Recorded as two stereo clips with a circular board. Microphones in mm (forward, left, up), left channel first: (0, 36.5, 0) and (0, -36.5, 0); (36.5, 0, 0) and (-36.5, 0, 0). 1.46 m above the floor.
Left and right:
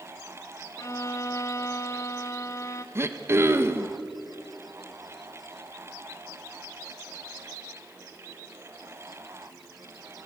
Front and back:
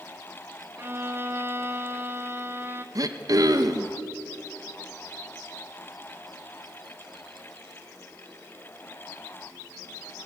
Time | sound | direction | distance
0.8 | a violin | 125° left | 1.4 m
3.0 | throat clearing | 145° right | 1.3 m